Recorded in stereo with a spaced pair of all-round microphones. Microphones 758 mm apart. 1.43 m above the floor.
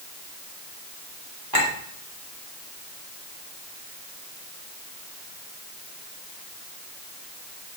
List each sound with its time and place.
1.5 s a clink: 30° right (ahead or behind), 2.5 m